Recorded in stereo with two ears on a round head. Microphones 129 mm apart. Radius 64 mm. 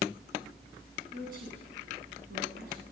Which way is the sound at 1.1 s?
70° right (ahead or behind).